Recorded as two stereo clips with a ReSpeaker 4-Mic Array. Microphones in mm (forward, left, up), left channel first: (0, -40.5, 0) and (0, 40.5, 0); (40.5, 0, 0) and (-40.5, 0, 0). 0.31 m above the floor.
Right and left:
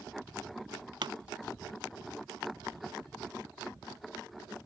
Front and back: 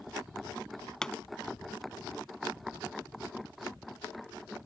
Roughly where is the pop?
Left.